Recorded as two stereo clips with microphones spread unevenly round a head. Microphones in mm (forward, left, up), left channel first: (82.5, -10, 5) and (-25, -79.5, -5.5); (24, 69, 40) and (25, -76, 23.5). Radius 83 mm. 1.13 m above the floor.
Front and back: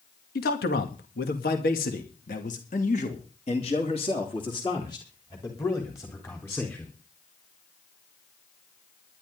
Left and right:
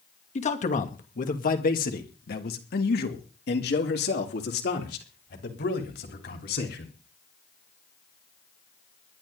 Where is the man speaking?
50° left, 2 m; by 6.9 s 110° left, 4 m.